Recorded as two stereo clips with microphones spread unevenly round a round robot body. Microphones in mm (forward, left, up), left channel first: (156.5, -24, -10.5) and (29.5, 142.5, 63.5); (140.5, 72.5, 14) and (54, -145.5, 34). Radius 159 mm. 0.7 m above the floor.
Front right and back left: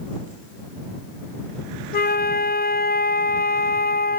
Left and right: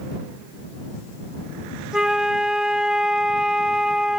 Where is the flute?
20° right.